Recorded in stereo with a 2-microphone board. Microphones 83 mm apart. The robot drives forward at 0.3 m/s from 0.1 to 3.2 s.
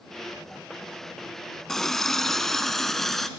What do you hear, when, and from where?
1.7 s a running tap: 5° left (ahead or behind), 0.8 m